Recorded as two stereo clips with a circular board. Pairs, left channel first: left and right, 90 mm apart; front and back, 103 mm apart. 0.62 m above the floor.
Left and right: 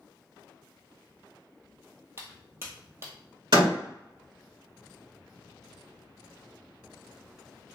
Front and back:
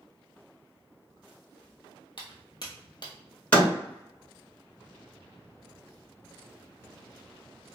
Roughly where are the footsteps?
Ahead right.